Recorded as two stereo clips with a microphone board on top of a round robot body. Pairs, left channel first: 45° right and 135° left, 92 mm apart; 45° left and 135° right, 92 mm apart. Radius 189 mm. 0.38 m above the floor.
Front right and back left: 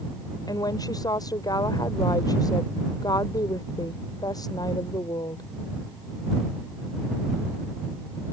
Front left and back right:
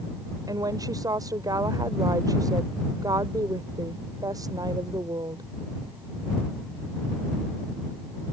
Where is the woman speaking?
90° right.